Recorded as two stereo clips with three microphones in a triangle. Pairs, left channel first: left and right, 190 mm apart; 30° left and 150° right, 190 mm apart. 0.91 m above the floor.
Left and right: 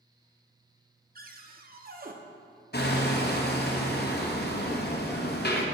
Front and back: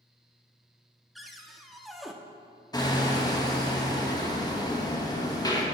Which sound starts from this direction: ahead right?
A cupboard door, at 1.1 s.